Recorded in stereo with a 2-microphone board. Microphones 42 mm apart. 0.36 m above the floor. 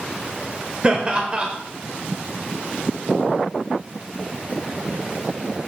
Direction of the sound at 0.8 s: 30° right (ahead or behind).